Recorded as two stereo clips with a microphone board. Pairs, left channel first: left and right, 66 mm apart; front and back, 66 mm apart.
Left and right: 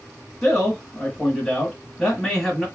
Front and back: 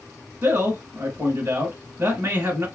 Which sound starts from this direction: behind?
A man speaking, at 0.4 s.